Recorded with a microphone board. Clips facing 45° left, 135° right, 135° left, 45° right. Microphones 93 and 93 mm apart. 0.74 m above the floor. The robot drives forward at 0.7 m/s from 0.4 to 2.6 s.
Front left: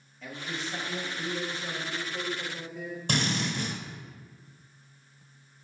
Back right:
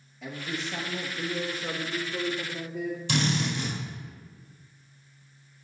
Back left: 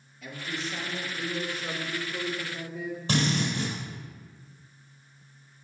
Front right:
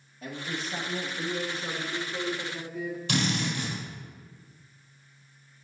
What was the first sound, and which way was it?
A man speaking, 60° right.